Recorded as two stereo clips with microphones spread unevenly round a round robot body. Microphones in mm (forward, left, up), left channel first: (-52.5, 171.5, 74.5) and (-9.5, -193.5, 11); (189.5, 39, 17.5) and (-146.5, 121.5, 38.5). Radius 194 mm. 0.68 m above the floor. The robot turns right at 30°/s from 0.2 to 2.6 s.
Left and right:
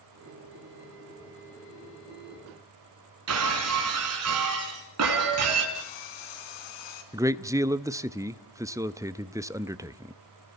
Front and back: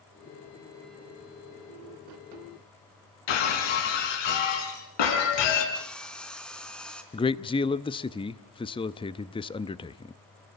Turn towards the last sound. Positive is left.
turn(degrees=-50)